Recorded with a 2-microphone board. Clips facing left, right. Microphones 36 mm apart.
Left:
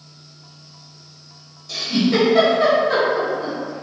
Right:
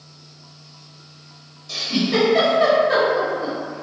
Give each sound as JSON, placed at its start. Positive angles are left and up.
{"t": 1.7, "sound": "a giggle", "side_deg": -5, "distance_m": 1.3}